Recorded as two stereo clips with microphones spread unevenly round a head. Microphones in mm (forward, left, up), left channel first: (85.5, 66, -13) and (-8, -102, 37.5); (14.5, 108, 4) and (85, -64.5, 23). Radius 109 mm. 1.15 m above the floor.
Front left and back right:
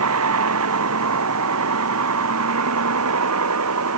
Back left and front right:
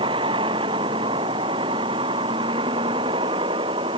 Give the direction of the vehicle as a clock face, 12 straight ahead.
5 o'clock.